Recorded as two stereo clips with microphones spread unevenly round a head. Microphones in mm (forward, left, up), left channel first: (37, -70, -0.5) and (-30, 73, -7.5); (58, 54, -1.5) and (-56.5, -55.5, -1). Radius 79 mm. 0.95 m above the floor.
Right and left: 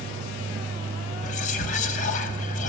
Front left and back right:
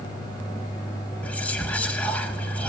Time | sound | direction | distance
1.2 | whispering | 35° right | 1.3 m